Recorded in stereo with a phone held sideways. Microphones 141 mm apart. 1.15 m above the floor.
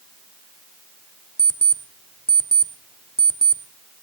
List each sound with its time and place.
1.4 s an alarm clock: 5° left (ahead or behind), 1.2 m